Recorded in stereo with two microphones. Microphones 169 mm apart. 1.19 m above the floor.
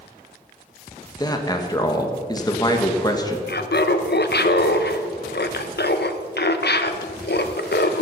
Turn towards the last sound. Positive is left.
turn(degrees=80)